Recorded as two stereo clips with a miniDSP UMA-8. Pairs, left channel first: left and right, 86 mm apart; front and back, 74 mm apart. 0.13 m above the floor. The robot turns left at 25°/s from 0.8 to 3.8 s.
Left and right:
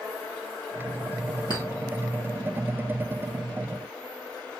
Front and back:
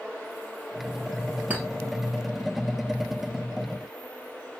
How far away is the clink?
About 2 m.